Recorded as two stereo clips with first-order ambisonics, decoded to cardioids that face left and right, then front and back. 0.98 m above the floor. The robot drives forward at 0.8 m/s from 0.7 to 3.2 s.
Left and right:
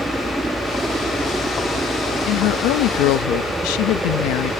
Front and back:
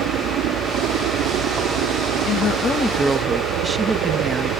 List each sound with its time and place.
0.0 s a helicopter: 170° right
2.3 s a woman speaking: 50° left; by 4.5 s 105° left